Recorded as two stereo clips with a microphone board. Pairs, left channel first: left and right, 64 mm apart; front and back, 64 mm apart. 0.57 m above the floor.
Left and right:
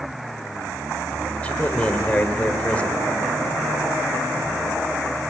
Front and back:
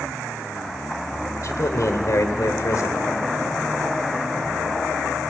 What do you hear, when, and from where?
1.4 s a man speaking: 20° left, 2 m